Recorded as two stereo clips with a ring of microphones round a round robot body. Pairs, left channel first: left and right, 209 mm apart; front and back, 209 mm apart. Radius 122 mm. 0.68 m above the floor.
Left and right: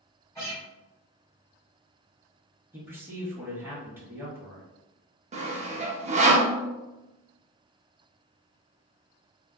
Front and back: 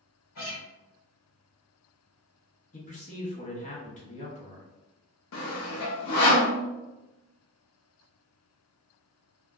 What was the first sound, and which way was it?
A guitar, 10° left.